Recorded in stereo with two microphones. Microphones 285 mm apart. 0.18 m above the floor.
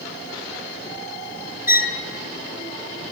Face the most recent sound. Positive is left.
turn(degrees=-10)  # may be behind; listen again after turning